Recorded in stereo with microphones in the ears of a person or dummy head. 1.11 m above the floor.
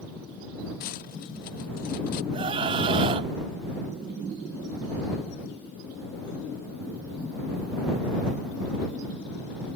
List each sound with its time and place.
0.8 s cutlery clinking: 50° left (ahead or behind)
2.3 s a scream: 30° right (ahead or behind)